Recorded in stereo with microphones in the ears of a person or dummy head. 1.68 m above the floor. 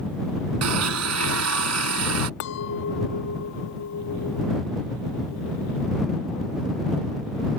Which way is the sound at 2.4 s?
65° left (ahead or behind).